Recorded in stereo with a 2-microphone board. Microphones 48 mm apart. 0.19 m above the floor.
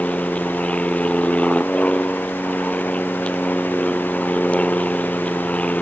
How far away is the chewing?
I don't hear chewing.